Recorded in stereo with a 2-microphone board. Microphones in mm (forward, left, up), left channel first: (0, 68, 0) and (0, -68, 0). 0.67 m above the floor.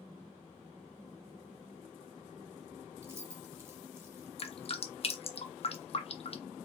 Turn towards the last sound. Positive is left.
turn(degrees=45)  # may be behind; listen again after turning